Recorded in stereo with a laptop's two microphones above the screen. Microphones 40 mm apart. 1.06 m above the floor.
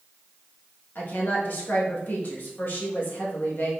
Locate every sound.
0.9 s a woman speaking: 50° left (ahead or behind), 1.0 m